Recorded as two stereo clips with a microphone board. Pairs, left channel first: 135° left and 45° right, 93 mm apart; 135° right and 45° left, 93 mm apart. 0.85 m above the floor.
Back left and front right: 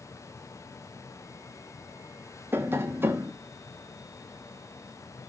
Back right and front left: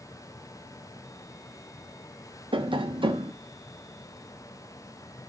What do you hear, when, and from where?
2.5 s tapping: 20° left, 0.9 m